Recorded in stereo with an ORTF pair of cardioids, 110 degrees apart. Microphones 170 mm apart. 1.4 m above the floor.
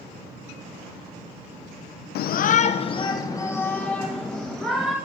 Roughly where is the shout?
Left.